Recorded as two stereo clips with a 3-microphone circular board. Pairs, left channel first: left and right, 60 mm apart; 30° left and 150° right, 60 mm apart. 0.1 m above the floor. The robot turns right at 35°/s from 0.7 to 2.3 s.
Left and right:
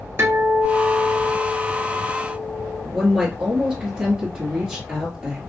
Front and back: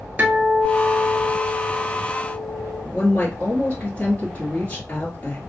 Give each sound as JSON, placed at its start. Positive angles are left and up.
{"t": 0.2, "sound": "a guitar", "azimuth_deg": -105, "distance_m": 1.1}
{"t": 2.9, "sound": "a woman speaking", "azimuth_deg": -20, "distance_m": 1.6}